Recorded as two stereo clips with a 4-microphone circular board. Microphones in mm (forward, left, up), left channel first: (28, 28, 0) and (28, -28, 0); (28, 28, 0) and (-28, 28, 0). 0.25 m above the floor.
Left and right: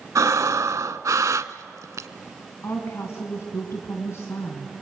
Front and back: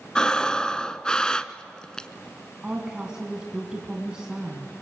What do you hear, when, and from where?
0.1 s breathing: 75° right, 0.7 m
2.6 s a woman speaking: 110° left, 2.5 m